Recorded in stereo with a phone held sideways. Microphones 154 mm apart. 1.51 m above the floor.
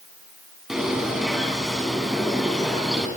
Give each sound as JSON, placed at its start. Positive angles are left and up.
{"t": 0.7, "sound": "a bird", "side_deg": -5, "distance_m": 5.5}